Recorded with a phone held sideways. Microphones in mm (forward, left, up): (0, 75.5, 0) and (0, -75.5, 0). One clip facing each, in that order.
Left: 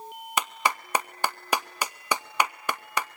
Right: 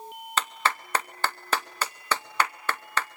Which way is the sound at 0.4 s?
15° left (ahead or behind).